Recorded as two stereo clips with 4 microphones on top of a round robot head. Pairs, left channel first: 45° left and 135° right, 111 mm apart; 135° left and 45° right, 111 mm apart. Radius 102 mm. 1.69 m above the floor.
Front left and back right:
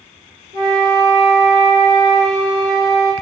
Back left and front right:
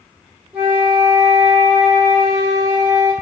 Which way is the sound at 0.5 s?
120° right.